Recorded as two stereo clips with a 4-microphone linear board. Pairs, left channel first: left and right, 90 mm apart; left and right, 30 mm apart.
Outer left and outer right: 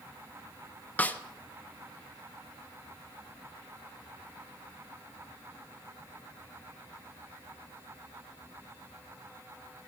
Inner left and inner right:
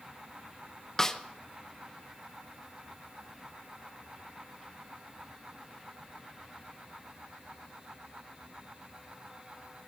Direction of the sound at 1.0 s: 20° left (ahead or behind).